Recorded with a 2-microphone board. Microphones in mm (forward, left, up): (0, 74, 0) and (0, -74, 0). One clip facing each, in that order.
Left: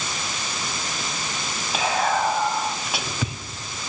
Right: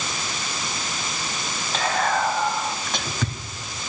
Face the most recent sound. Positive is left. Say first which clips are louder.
# left 1 dB
turn(degrees=10)  # may be behind; listen again after turning